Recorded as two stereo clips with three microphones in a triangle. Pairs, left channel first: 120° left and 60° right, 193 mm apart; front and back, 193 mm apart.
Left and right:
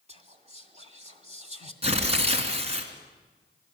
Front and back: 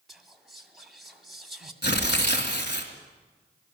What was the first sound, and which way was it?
Whispering, 90° right.